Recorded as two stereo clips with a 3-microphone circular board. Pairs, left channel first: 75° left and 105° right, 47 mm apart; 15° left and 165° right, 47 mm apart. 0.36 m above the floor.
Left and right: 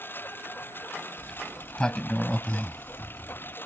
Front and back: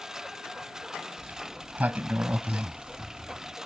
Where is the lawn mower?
115° left.